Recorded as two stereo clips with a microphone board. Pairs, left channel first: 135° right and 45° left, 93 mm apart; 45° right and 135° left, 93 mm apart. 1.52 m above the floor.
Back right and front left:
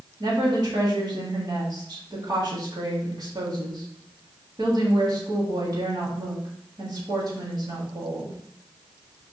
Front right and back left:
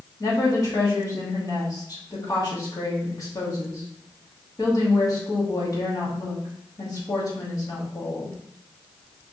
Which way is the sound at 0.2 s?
Straight ahead.